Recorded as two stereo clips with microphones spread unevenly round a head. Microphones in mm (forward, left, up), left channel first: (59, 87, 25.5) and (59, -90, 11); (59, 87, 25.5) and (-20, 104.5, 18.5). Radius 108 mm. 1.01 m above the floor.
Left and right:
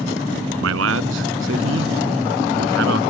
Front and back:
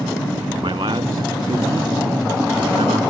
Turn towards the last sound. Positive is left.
turn(degrees=-130)